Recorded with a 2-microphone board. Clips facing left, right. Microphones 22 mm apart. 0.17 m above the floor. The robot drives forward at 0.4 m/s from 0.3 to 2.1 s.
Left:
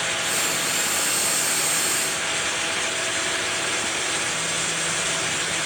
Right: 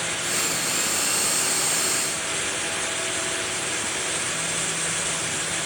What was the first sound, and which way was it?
Only background noise.